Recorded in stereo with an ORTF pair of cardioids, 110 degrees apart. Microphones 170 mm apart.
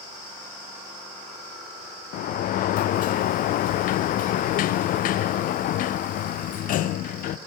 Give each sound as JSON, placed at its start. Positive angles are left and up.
{"t": 2.1, "sound": "a sliding door", "azimuth_deg": 60, "distance_m": 0.5}